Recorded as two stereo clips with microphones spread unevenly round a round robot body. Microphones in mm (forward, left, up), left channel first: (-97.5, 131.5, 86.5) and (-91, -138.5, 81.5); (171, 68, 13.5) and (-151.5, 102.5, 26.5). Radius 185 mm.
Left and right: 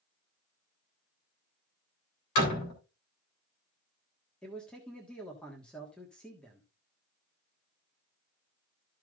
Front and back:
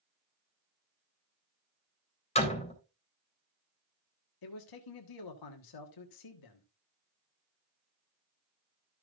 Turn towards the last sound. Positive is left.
turn(degrees=5)